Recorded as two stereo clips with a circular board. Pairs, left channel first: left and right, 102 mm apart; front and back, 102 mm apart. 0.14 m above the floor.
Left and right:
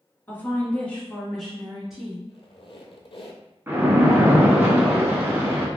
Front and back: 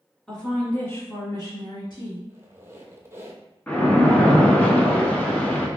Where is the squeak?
115° left, 0.7 m.